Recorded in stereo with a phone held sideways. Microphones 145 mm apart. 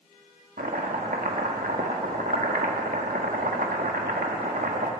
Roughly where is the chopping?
Right.